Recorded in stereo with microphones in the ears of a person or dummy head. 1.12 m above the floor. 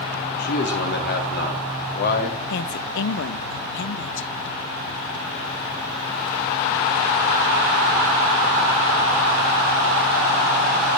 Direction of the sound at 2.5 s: 65° left (ahead or behind).